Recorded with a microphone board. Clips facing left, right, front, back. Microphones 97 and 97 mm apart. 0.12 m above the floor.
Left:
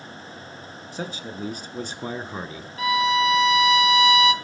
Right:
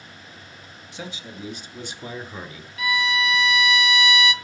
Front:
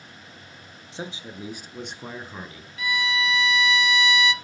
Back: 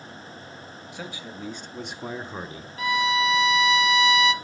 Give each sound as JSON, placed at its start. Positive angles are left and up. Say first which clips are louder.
{"t": 0.9, "sound": "a man speaking", "louder": "left 4 dB, front 3 dB", "azimuth_deg": 55, "distance_m": 1.8}
{"t": 2.8, "sound": "a violin", "louder": "left 4 dB, back 4 dB", "azimuth_deg": 135, "distance_m": 0.6}